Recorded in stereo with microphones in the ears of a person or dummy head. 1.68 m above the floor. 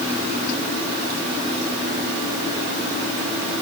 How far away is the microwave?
I don't hear a microwave.